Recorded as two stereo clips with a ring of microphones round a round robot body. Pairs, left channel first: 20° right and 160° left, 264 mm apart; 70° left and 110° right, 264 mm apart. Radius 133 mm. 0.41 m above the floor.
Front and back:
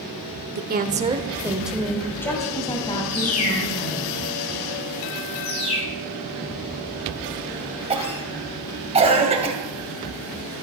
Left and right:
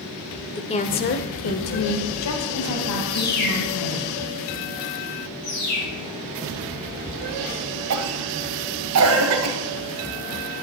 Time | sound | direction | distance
0.6 | a woman speaking | 135° left | 1.1 m
3.1 | a bird | 15° left | 4.5 m
5.4 | a bird | 35° left | 7 m
7.9 | a cough | 135° right | 2.5 m